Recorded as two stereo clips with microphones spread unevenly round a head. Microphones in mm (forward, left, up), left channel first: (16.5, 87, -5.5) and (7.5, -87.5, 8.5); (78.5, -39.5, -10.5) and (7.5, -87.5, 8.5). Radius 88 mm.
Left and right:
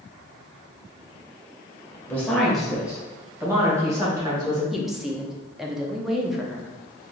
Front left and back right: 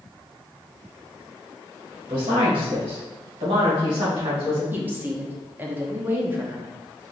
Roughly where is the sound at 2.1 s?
Behind.